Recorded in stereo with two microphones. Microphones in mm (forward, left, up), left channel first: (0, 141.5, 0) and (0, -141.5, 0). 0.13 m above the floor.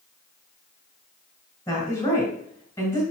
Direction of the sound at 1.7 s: 10° left (ahead or behind).